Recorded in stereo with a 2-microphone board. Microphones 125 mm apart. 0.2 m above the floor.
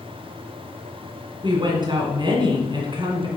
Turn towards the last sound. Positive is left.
turn(degrees=-40)  # may be behind; listen again after turning